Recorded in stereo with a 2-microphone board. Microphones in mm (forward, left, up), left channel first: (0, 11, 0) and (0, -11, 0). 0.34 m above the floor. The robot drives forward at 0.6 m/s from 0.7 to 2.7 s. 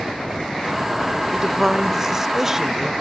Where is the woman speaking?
15° right (ahead or behind), 1.1 m.